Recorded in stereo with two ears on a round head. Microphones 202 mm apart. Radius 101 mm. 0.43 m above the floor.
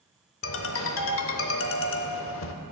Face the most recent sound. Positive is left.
turn(degrees=60)  # may be behind; listen again after turning